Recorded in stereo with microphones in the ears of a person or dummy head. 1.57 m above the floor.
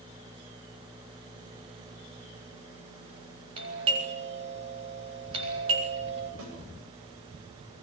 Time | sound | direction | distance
3.6 | a doorbell | 35° right (ahead or behind) | 7 m
6.4 | a snare drum | 90° right | 10 m